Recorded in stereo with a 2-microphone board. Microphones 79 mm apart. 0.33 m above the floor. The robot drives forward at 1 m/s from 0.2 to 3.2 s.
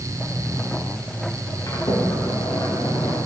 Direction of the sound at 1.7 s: 50° left (ahead or behind).